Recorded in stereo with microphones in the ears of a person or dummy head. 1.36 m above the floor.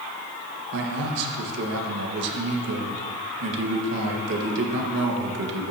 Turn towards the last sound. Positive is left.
turn(degrees=-60)  # may be behind; listen again after turning